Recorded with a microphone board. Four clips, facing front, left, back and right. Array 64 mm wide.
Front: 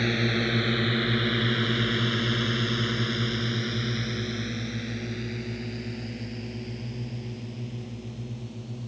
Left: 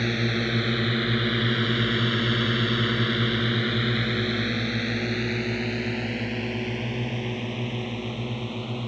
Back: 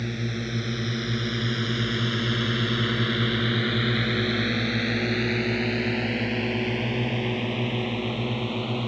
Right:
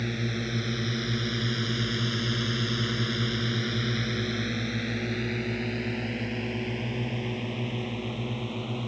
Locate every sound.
0.0 s a drone: 40° left; by 8.9 s 175° left